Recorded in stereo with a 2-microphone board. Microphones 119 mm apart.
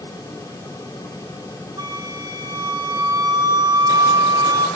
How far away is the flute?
About 1.3 m.